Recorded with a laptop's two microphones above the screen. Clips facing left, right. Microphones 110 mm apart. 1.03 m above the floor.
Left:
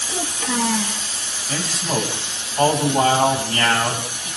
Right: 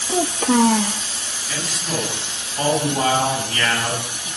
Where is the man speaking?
35° left (ahead or behind), 7 m.